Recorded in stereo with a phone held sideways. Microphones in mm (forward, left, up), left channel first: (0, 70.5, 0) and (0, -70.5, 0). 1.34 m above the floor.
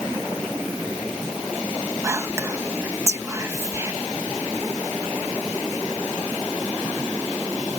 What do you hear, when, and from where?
2.0 s whispering: 20° right (ahead or behind)